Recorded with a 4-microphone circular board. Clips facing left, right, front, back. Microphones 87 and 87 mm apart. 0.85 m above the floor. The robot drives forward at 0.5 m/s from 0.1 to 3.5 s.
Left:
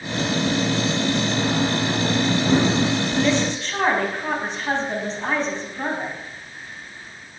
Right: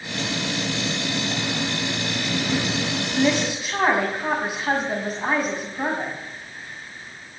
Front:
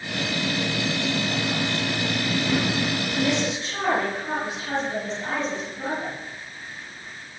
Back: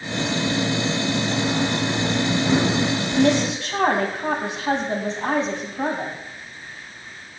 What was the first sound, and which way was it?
A woman speaking, 170° right.